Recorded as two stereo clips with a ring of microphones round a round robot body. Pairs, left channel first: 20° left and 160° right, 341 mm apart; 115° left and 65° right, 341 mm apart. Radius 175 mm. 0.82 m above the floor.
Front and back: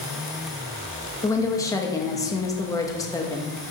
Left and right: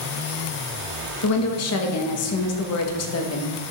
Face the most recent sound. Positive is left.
turn(degrees=100)